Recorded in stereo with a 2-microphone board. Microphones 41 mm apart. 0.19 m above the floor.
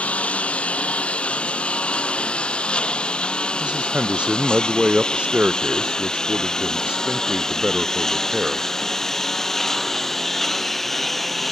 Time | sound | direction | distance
0.0 | a lawn mower | 30° left (ahead or behind) | ?
3.6 | a man speaking | 25° right (ahead or behind) | ?